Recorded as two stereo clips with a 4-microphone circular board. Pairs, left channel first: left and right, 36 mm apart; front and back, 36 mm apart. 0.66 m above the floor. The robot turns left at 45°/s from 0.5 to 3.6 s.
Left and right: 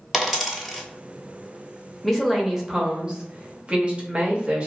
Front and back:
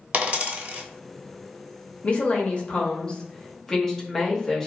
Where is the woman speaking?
Straight ahead, 0.7 m; by 4.7 s 70° right, 0.7 m.